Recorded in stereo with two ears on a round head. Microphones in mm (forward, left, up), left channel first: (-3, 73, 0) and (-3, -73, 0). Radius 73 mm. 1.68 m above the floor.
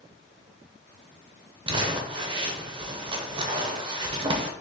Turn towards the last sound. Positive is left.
turn(degrees=-30)  # may be behind; listen again after turning